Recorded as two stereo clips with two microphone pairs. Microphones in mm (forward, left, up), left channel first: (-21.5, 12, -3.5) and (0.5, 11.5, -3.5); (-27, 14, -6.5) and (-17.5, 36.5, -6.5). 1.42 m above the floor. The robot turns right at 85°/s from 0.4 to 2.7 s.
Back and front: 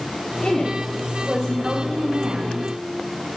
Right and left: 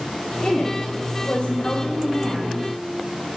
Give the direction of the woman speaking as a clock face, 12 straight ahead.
5 o'clock.